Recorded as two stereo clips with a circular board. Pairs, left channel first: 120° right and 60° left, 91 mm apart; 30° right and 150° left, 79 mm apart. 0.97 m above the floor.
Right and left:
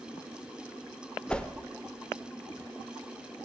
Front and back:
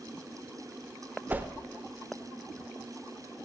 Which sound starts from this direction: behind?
A whoosh, at 1.3 s.